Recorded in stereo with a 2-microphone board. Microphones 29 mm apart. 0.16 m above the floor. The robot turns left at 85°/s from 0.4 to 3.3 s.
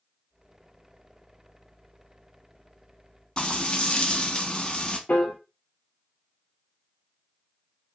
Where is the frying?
25° left (ahead or behind), 0.9 m.